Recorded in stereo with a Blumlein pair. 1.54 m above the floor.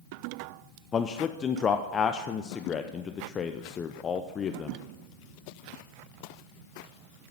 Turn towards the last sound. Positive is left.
turn(degrees=20)